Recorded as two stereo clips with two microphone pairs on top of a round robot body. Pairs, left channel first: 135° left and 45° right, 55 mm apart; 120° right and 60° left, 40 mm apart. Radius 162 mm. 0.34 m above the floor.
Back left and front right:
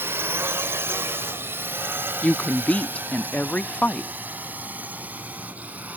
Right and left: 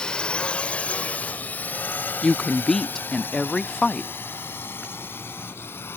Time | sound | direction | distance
0.0 | a drone | 55° right | ?
2.2 | a woman speaking | 175° right | ?